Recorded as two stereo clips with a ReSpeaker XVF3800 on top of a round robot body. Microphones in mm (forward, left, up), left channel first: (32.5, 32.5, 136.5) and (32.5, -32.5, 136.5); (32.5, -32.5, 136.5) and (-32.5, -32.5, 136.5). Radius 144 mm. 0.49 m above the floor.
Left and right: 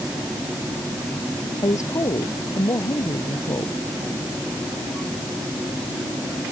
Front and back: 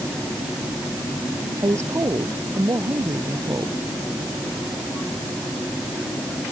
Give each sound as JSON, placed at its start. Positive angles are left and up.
{"t": 1.6, "sound": "a woman speaking", "azimuth_deg": 130}